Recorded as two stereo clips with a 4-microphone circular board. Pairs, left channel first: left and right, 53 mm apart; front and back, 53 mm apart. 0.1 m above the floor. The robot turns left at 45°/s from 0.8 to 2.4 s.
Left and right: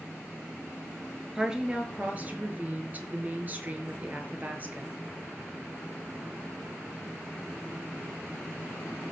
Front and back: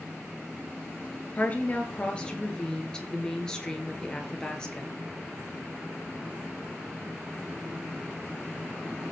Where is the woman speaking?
20° right, 1.5 m; by 4.9 s 65° right, 1.5 m.